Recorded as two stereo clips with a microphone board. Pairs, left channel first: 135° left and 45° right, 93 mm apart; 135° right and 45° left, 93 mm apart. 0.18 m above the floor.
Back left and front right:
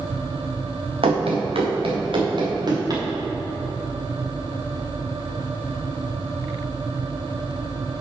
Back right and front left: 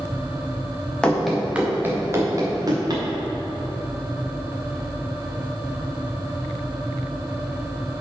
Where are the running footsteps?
55° right, 1.8 m; by 3.0 s straight ahead, 3 m.